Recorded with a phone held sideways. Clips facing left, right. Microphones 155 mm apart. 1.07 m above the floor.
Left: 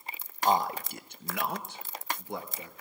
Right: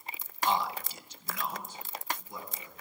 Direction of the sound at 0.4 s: 40° left (ahead or behind).